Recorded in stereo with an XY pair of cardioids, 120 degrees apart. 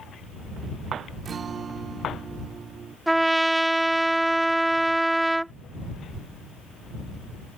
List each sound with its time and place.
1.2 s a guitar: 40° right
3.1 s a trumpet: 10° right